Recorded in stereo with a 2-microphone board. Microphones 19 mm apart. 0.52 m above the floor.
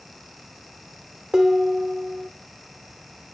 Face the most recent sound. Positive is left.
turn(degrees=-25)  # may be behind; listen again after turning